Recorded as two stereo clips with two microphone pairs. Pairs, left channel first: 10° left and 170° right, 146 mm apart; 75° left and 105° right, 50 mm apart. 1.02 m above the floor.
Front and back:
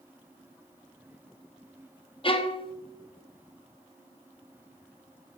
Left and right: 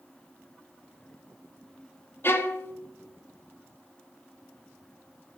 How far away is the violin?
About 0.8 m.